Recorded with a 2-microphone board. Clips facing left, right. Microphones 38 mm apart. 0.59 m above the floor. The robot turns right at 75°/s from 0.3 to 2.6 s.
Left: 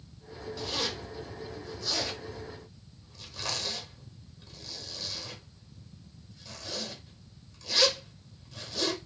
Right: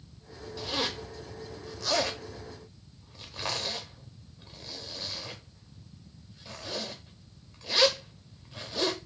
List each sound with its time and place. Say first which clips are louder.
0.6 s a zipper: right 2 dB; centre (ahead or behind), 0.7 m; by 9.0 s 25° right (ahead or behind), 0.7 m